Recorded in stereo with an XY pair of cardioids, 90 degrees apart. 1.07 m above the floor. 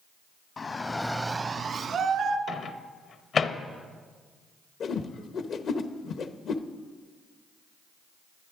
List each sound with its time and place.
0.6 s a shout: 50° left, 0.9 m; by 2.4 s 70° right, 1.7 m
2.5 s a microwave: 60° left, 0.8 m
4.8 s a whoosh: 65° left, 0.8 m